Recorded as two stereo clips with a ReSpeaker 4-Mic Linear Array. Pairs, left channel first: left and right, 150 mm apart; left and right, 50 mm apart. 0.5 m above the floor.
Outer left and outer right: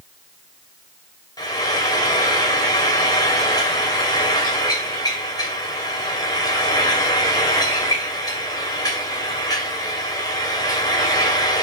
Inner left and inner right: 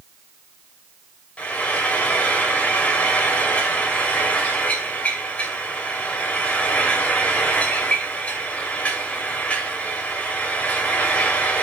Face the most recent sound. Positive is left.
turn(degrees=25)  # may be behind; listen again after turning